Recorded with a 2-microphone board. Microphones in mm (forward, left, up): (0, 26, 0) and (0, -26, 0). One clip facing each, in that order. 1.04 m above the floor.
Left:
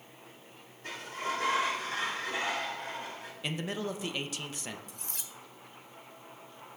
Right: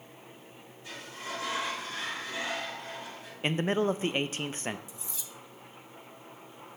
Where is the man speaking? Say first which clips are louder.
Right 8 dB; 40° right (ahead or behind), 0.5 m.